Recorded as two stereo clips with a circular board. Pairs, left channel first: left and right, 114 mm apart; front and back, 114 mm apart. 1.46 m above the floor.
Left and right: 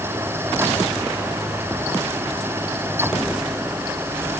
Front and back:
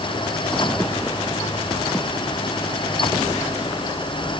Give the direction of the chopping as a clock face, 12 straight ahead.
No chopping in this recording.